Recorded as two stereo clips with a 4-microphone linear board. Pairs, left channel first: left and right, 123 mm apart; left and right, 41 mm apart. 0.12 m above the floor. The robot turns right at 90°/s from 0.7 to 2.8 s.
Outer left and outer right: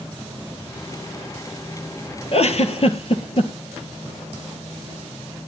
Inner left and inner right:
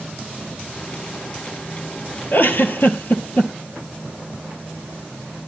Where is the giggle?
55° left (ahead or behind), 1.5 m.